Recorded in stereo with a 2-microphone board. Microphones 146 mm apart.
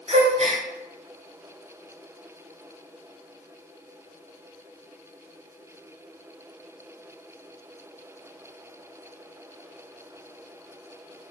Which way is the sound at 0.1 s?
50° right (ahead or behind).